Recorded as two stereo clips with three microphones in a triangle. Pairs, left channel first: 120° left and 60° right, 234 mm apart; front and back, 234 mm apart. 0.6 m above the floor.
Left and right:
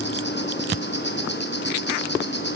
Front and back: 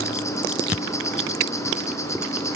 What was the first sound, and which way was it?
An insect, 80° left.